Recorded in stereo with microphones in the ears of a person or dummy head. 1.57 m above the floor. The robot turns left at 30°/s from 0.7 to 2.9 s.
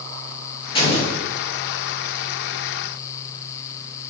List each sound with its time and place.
0.8 s an explosion: 35° left (ahead or behind), 2.5 m; by 1.2 s 45° left (ahead or behind), 2.5 m